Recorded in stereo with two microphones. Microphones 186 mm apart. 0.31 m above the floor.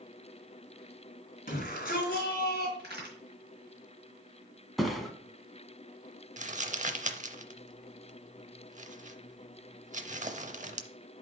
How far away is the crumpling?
About 0.6 m.